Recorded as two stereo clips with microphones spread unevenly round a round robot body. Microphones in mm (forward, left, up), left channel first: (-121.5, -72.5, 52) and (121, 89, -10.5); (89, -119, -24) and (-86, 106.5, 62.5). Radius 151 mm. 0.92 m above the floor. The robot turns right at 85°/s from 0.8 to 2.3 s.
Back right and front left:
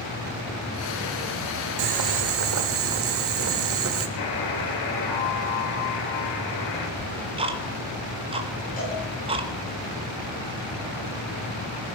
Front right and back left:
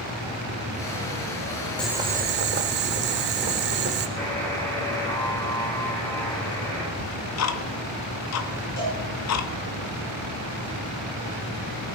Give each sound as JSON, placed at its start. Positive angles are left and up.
{"t": 1.8, "sound": "boiling", "azimuth_deg": 40, "distance_m": 1.1}
{"t": 4.2, "sound": "a buzzer", "azimuth_deg": -135, "distance_m": 3.5}
{"t": 7.0, "sound": "ticking", "azimuth_deg": -35, "distance_m": 1.2}
{"t": 8.8, "sound": "a cowbell", "azimuth_deg": -80, "distance_m": 9.5}